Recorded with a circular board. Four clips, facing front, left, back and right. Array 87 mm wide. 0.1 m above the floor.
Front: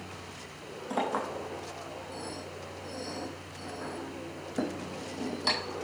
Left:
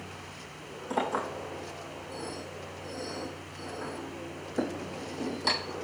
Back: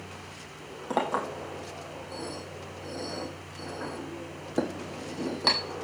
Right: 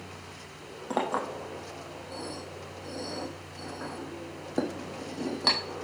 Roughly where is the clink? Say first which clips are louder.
Right 1 dB, back 3 dB; behind right.